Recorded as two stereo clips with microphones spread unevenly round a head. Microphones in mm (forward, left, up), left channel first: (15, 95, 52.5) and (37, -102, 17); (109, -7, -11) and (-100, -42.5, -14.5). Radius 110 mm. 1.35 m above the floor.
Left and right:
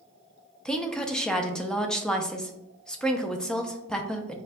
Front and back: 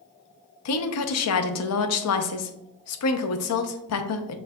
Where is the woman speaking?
10° left, 0.6 m.